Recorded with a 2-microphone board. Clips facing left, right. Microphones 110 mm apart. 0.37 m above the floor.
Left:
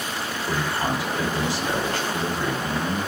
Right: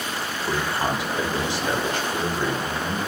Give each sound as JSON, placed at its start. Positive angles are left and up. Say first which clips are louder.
{"t": 0.4, "sound": "a man speaking", "louder": "right 1 dB", "side_deg": -20, "distance_m": 1.1}